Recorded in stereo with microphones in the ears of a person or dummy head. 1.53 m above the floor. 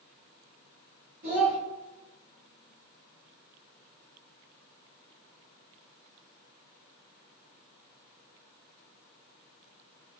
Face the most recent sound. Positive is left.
turn(degrees=-45)  # may be behind; listen again after turning